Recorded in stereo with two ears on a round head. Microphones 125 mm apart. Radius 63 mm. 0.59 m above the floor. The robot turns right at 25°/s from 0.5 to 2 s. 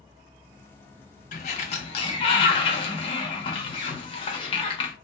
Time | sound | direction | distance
1.3 | a sliding door | 60° left (ahead or behind) | 1.0 m